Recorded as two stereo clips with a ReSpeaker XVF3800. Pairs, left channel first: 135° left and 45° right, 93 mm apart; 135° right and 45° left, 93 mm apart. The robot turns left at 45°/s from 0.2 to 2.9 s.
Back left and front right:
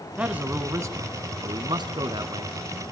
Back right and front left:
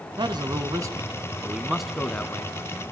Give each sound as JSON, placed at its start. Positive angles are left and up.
{"t": 0.2, "sound": "a man speaking", "azimuth_deg": 30, "distance_m": 1.7}